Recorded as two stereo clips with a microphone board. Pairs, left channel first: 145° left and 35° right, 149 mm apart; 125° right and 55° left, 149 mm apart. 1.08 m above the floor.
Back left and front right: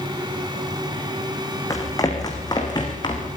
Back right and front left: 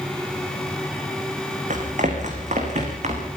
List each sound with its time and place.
1.7 s running footsteps: 80° left, 4 m; by 3.3 s 90° left, 5 m